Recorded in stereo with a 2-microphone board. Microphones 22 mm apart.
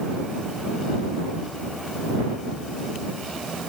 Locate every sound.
Only background noise.